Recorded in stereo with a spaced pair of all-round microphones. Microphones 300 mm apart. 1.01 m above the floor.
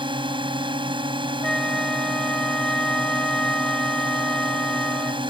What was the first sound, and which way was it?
A drone, 15° right (ahead or behind).